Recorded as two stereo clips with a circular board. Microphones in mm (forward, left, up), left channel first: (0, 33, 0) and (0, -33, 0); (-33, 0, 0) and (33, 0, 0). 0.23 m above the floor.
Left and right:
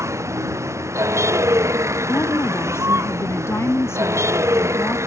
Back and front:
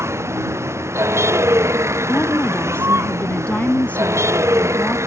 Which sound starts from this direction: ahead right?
A vehicle, at 0.0 s.